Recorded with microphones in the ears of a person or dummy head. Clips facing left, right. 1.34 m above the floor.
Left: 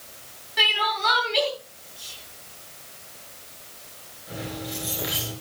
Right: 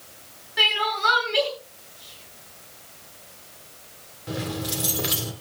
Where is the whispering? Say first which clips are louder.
Left 1 dB; 60° left (ahead or behind), 4 m.